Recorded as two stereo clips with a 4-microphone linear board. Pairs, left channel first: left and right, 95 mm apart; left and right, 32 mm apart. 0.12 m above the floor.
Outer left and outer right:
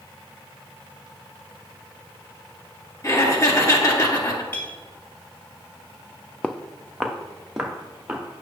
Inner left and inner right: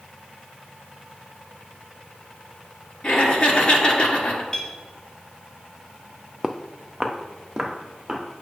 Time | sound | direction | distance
3.0 | laughter | 35° left (ahead or behind) | 1.7 m
4.5 | a clink | 25° left (ahead or behind) | 1.5 m
6.4 | footsteps | 10° left (ahead or behind) | 0.6 m